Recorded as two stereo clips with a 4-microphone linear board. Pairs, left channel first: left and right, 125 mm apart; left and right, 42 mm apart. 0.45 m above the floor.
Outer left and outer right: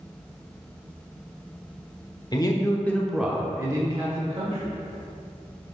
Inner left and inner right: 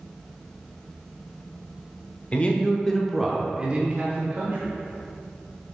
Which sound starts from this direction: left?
A man speaking, at 2.3 s.